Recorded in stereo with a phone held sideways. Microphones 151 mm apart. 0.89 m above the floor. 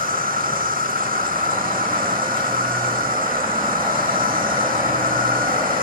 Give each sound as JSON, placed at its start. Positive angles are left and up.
{"t": 0.0, "sound": "an insect", "side_deg": -70, "distance_m": 1.0}